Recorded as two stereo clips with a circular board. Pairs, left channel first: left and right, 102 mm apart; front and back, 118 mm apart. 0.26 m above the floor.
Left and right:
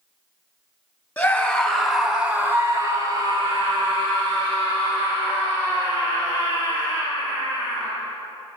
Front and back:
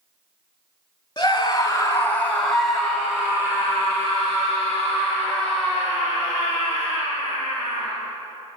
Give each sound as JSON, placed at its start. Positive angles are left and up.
{"t": 1.2, "sound": "a scream", "azimuth_deg": 30, "distance_m": 1.4}